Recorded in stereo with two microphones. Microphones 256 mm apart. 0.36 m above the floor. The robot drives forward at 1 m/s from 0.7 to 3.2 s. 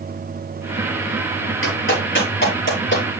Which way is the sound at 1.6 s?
55° left (ahead or behind).